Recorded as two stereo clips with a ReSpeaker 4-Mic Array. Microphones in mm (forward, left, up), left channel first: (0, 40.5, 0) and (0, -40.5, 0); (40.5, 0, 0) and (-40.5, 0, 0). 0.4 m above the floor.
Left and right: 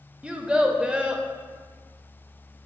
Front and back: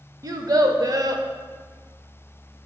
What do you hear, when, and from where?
0.2 s a child speaking: 165° right, 0.5 m